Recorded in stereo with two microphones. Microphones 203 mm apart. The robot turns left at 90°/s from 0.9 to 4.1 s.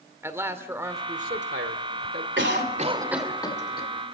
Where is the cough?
70° right (ahead or behind), 3 m; by 3.9 s 55° left (ahead or behind), 3 m.